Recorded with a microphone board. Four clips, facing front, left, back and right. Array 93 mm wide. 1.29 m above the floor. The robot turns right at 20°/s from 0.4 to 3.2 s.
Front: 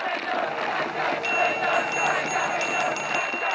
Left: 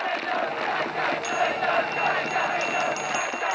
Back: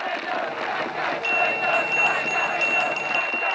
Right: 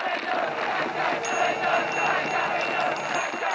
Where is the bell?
20° right; by 3.6 s 20° left.